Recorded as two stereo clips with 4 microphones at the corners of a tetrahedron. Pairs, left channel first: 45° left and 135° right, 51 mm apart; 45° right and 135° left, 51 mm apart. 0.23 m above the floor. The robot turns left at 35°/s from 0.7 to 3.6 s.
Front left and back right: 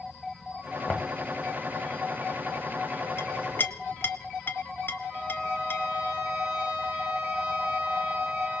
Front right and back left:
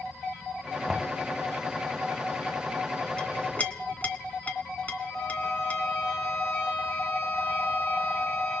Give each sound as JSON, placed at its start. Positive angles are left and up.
{"t": 0.9, "sound": "knocking", "azimuth_deg": 70, "distance_m": 0.8}
{"t": 3.2, "sound": "a clink", "azimuth_deg": 25, "distance_m": 1.2}
{"t": 5.1, "sound": "a violin", "azimuth_deg": -65, "distance_m": 7.5}